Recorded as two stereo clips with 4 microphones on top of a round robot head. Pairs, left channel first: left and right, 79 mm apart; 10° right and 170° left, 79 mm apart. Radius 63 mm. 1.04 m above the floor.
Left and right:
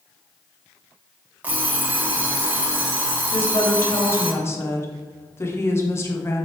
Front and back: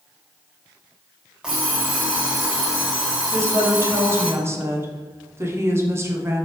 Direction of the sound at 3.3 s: 130° left.